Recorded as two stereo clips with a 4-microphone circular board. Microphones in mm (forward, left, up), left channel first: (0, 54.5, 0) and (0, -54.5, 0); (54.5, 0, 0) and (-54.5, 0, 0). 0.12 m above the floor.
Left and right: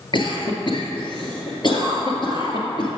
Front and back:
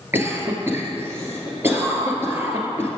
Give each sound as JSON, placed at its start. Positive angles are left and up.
{"t": 0.1, "sound": "a cough", "azimuth_deg": 115, "distance_m": 1.8}